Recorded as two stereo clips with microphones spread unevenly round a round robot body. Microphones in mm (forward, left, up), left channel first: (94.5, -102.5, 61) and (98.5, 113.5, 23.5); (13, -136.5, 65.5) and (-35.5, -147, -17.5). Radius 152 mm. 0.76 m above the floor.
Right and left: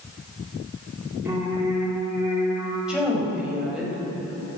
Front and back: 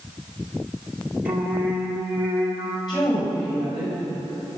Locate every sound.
1.2 s singing: 170° left, 1.9 m
2.9 s a woman speaking: 5° left, 5 m